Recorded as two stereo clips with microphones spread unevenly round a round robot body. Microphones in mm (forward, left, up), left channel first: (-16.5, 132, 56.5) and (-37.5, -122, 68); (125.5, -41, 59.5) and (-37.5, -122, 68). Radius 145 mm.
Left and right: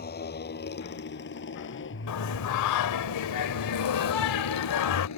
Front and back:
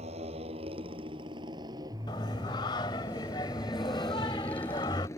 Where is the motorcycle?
140° left; by 5.2 s 105° left.